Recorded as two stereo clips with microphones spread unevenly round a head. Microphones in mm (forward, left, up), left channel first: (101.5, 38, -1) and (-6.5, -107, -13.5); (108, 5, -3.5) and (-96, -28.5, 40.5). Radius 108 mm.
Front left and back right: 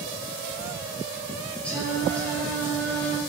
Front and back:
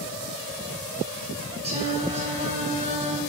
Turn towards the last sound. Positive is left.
turn(degrees=135)